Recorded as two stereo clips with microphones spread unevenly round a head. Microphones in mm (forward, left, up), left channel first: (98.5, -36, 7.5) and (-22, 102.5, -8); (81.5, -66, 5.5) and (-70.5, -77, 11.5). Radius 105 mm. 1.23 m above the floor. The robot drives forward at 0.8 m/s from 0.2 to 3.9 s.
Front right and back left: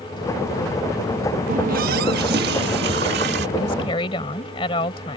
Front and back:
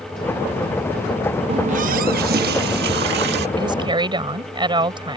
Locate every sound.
1.5 s a running tap: 165° left; by 3.5 s 175° left
3.6 s a woman speaking: 115° right